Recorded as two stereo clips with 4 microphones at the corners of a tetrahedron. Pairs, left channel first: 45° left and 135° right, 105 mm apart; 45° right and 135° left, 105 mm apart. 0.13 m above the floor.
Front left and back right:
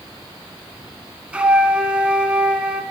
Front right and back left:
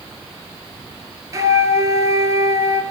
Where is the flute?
155° left, 0.6 m.